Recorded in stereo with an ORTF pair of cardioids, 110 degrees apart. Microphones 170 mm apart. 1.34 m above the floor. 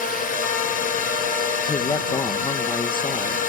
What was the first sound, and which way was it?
A drone, 50° left.